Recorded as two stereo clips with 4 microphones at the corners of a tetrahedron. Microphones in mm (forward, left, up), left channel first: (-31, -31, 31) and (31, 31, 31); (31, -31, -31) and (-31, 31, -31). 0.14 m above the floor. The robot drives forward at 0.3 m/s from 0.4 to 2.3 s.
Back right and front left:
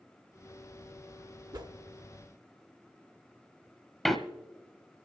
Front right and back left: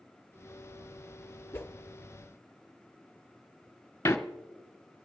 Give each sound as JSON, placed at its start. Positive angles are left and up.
{"t": 1.5, "sound": "a whoosh", "azimuth_deg": 15, "distance_m": 0.9}
{"t": 4.0, "sound": "a door slam", "azimuth_deg": -50, "distance_m": 0.9}